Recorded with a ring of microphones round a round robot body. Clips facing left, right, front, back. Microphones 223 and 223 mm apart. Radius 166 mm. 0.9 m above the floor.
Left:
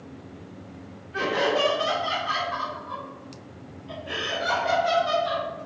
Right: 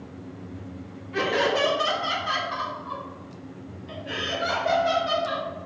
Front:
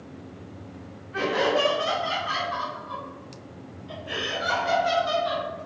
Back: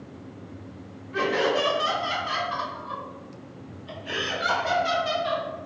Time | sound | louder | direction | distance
1.1 | laughter | right 1 dB, even | 115° right | 2.5 m